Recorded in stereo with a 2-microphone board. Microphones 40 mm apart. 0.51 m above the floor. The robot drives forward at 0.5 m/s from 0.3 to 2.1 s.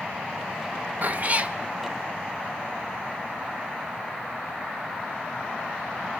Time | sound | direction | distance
1.0 | a cat meowing | 45° right (ahead or behind) | 0.6 m